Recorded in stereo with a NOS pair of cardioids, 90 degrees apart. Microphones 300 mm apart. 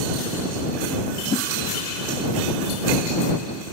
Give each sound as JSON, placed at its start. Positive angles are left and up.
{"t": 1.3, "sound": "a whoosh", "azimuth_deg": 25}